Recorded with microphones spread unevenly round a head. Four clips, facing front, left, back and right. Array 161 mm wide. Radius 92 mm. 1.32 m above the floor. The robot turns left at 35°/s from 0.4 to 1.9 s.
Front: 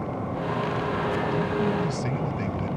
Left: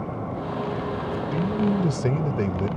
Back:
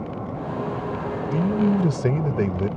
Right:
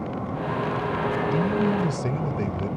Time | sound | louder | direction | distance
1.3 | a man speaking | left 2 dB, back 4 dB | 175° right | ?